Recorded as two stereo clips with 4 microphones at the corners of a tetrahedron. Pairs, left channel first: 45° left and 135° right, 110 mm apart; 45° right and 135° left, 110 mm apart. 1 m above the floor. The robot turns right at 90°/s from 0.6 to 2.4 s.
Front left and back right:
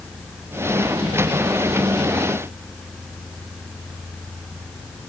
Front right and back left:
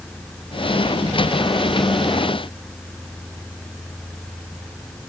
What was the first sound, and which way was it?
Only background noise.